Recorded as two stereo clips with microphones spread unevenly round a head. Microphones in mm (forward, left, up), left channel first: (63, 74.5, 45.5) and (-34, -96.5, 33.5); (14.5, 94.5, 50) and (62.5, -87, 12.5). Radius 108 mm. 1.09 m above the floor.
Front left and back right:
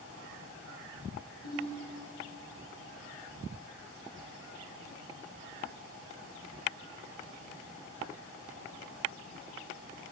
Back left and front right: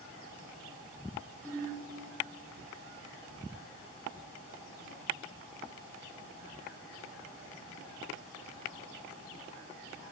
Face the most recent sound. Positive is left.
turn(degrees=25)